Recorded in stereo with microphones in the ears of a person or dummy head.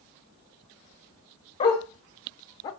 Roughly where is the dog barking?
Left.